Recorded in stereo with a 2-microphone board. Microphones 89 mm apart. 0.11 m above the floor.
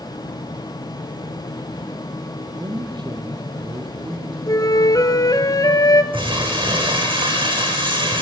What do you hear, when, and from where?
2.5 s a man speaking: 50° right (ahead or behind), 3 m; by 4.4 s 65° right (ahead or behind), 4.5 m
4.5 s a flute: 45° left (ahead or behind), 1.4 m
6.1 s crumpling: 75° right (ahead or behind), 8 m